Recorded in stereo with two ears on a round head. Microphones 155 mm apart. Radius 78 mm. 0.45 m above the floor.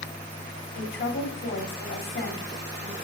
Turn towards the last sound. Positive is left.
turn(degrees=65)  # may be behind; listen again after turning